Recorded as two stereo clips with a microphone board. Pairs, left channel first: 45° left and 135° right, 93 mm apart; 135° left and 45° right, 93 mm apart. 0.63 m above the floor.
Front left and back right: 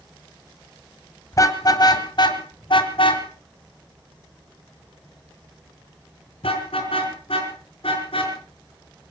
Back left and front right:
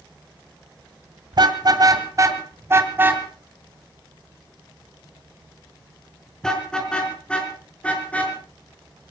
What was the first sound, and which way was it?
A car horn, 10° right.